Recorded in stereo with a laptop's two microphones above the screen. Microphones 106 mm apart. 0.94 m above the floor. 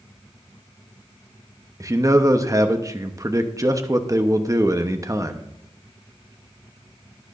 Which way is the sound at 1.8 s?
30° right (ahead or behind).